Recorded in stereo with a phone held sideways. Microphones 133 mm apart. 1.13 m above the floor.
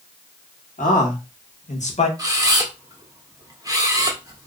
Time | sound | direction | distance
0.8 | a man speaking | 80° left | 1.3 m
2.2 | a camera shutter | 25° right (ahead or behind) | 0.8 m